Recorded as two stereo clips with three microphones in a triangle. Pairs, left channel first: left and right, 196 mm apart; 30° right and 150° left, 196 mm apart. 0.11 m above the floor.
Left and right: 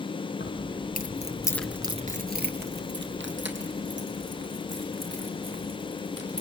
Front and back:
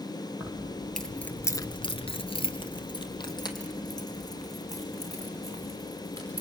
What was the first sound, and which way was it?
Keys jangling, 65° left.